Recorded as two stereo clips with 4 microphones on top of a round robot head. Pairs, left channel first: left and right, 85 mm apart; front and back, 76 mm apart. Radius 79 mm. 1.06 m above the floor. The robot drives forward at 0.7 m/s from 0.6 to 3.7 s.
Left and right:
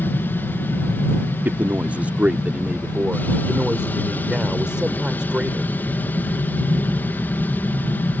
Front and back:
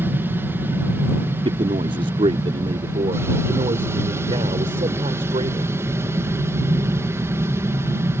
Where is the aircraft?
140° left; by 8.2 s 145° left.